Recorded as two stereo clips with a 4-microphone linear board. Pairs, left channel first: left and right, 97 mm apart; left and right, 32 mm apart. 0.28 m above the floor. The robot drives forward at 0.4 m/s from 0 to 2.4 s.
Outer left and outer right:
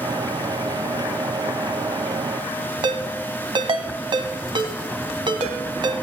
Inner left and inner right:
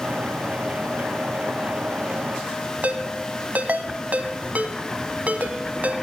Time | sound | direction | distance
2.8 | a ringtone | 55° right (ahead or behind) | 1.1 m